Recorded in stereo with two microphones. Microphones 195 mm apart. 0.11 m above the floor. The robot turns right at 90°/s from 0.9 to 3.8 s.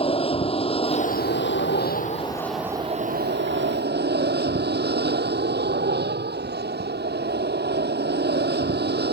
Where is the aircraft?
30° left; by 9.1 s 65° right.